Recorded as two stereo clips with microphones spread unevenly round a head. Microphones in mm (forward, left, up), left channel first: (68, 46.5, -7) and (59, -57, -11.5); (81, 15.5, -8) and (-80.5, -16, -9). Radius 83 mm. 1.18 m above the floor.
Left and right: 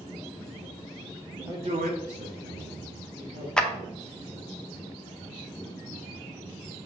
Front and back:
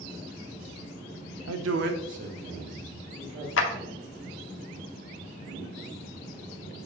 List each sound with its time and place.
1.5 s a man speaking: 175° right, 0.6 m; by 3.5 s 100° right, 2 m
3.6 s a clap: 5° left, 0.7 m